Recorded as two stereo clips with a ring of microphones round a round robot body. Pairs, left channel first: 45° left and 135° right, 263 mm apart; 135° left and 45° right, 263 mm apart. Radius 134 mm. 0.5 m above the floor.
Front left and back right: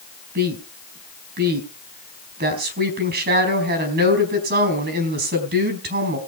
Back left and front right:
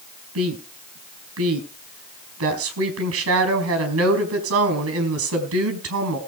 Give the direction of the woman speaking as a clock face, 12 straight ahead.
3 o'clock.